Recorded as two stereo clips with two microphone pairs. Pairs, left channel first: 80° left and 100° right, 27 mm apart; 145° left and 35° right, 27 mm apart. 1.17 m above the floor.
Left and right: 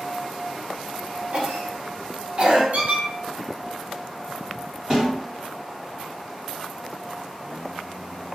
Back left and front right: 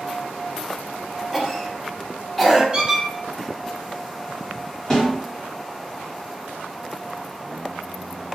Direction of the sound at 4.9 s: 155° right.